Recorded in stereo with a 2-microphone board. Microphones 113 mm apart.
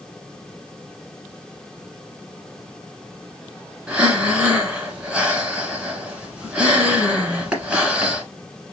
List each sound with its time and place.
3.9 s breathing: 10° right (ahead or behind), 1.4 m